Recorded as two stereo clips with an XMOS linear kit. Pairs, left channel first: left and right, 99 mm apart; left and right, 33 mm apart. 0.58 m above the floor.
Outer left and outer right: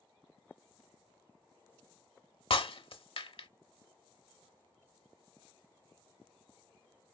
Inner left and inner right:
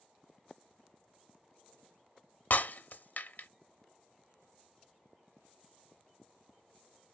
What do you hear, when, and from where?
2.5 s breaking glass: 65° left (ahead or behind), 0.7 m